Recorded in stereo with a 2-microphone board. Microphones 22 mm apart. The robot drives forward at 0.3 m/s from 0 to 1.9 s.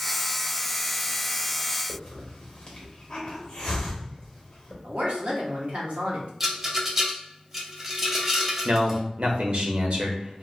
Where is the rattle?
15° right (ahead or behind), 0.5 m.